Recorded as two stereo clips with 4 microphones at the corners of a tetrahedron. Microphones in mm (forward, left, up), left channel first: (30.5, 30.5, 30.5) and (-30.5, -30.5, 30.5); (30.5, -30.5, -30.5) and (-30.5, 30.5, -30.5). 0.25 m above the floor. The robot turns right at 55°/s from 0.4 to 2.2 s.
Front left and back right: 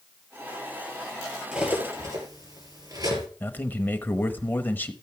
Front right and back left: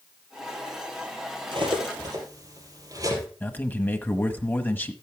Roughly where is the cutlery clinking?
Behind left.